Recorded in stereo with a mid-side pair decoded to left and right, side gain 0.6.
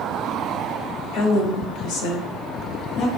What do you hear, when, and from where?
1.1 s a woman speaking: 70° left, 1.0 m